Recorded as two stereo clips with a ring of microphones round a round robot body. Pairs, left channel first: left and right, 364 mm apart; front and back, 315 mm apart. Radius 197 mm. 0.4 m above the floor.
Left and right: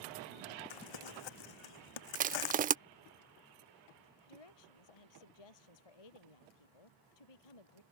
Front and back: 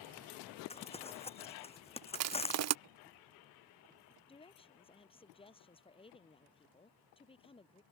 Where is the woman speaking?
75° left.